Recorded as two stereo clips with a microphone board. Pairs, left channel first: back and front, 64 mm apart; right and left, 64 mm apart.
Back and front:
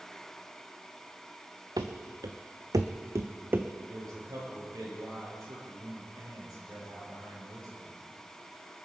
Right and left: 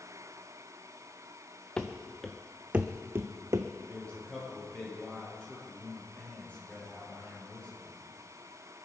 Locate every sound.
1.8 s running footsteps: 15° right, 1.4 m; by 3.7 s 60° left, 1.1 m
3.9 s a man speaking: 20° right, 6 m